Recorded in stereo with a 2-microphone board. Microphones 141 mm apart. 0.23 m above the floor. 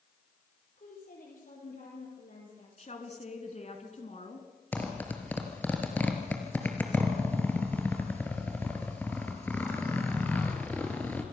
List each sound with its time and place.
0.8 s a woman speaking: 75° left (ahead or behind), 8 m
2.8 s a woman speaking: 50° left (ahead or behind), 3 m
4.7 s a zipper: 10° left (ahead or behind), 2.5 m